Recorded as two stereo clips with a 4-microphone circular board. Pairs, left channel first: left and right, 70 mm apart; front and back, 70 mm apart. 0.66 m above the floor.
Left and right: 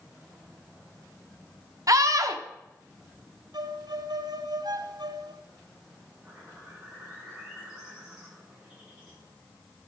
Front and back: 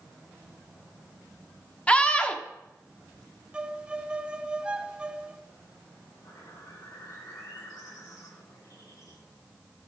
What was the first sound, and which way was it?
A scream, 70° right.